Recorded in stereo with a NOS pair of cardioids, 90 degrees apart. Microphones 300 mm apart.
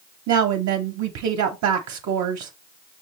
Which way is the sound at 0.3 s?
65° right.